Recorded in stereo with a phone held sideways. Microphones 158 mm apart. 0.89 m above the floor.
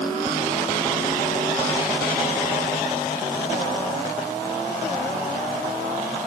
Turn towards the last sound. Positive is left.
No sound to turn to.